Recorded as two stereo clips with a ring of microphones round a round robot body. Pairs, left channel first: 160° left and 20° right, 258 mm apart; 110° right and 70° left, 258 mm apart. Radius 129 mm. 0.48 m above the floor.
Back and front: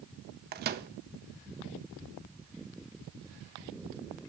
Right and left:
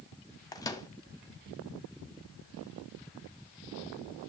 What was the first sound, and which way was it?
A microwave, 45° right.